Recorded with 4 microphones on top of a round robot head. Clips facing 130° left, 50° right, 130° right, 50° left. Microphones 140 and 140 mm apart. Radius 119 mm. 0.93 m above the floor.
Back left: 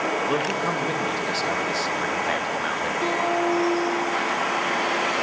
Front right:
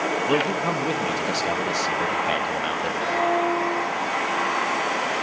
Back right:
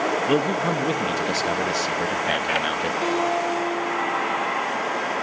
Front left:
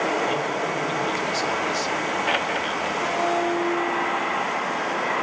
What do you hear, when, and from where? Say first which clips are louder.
0.3 s a man speaking: front right 2 dB, back right 4 dB; 120° right, 1.4 m
3.0 s a guitar: front right 1 dB, even; 170° left, 5 m